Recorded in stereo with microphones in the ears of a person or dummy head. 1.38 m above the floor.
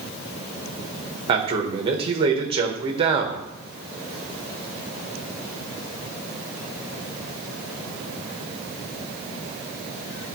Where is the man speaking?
30° right (ahead or behind), 1.1 m.